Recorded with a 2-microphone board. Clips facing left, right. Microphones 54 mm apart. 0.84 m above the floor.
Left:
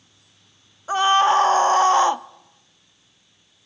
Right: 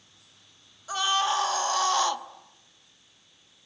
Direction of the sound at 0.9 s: 35° left (ahead or behind).